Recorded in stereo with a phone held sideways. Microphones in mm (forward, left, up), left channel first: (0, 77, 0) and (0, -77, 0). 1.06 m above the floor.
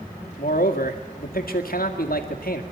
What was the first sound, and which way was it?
A man speaking, 75° left (ahead or behind).